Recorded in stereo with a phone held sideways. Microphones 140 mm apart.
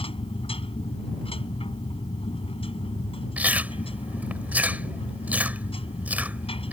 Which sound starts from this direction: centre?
Chewing, at 3.4 s.